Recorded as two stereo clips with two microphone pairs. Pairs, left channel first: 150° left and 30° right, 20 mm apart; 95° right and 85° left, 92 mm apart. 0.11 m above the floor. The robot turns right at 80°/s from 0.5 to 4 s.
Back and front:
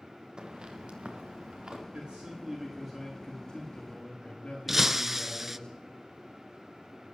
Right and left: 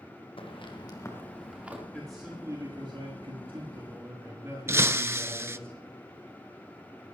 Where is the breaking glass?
35° left, 0.5 m.